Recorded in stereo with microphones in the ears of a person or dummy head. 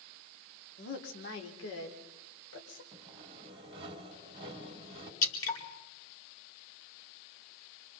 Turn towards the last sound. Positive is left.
turn(degrees=20)  # may be behind; listen again after turning